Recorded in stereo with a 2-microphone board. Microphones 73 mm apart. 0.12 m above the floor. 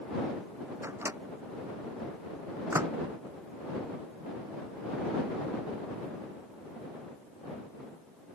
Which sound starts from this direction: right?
A microwave, at 0.8 s.